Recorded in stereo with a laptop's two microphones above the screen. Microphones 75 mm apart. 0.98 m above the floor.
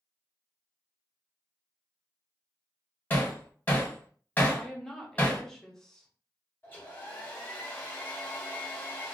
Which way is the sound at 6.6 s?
30° left (ahead or behind).